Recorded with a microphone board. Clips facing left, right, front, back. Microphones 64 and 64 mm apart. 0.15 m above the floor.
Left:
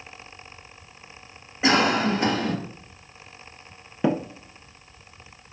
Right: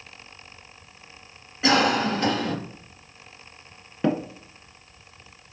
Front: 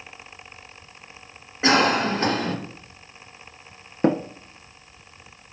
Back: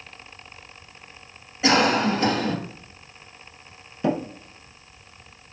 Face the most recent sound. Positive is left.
turn(degrees=10)